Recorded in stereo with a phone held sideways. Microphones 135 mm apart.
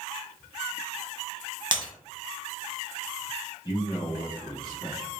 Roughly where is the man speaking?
Left.